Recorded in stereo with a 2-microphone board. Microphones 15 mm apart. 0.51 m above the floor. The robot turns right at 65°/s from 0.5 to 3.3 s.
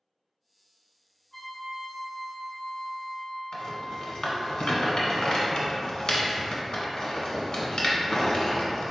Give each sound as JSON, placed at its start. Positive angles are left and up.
{"t": 1.3, "sound": "a trumpet", "azimuth_deg": 55, "distance_m": 1.4}
{"t": 3.5, "sound": "a rattle", "side_deg": 55, "distance_m": 1.0}